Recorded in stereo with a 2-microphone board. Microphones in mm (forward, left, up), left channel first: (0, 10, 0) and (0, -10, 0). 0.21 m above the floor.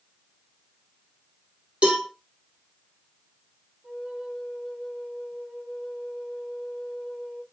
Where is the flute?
85° right, 4.5 m.